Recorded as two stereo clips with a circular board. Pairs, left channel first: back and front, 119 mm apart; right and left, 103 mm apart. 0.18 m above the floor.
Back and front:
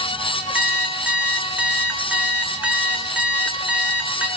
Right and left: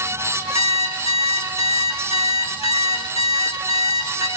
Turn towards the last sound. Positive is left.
turn(degrees=-80)